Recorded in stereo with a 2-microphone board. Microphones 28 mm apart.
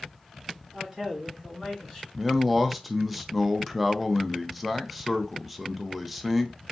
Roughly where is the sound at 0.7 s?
Centre.